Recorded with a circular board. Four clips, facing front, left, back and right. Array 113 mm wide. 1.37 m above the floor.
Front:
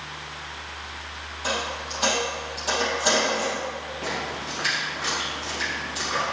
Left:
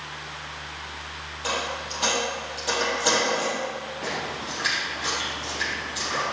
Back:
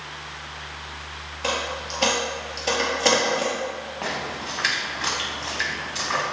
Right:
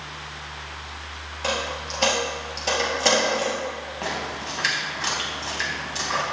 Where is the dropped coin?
140° right, 3.5 m.